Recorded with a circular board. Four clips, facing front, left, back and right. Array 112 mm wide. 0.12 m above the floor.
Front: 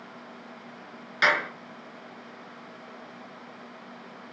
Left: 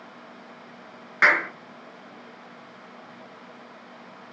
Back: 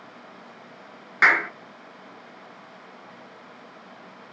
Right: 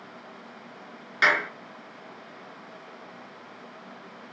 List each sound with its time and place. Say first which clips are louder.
1.2 s a clap: left 3 dB, back 4 dB; 150° left, 1.4 m